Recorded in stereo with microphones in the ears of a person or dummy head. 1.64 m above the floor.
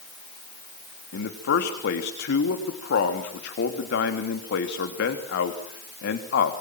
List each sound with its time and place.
1.1 s a man speaking: 55° left (ahead or behind), 3 m